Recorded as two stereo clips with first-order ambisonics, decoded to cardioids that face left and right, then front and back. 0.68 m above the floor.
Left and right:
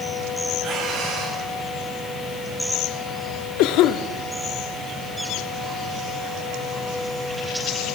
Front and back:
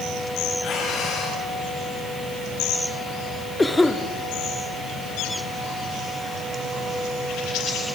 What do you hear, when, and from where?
0.6 s breathing: 45° right, 5 m
3.6 s a cough: 80° left, 1.0 m